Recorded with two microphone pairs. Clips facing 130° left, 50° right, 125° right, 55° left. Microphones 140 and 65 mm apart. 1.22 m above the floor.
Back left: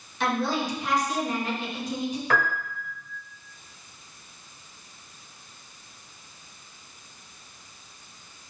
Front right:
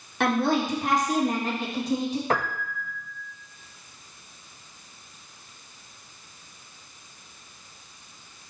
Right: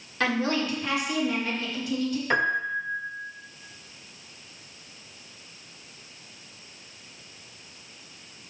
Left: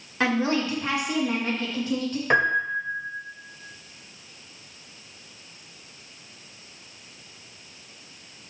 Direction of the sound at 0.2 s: 20° right.